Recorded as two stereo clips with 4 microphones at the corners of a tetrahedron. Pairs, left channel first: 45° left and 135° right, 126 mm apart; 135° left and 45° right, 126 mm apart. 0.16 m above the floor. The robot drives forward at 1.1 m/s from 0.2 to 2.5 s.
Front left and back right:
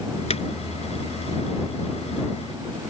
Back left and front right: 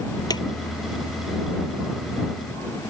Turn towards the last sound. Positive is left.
turn(degrees=155)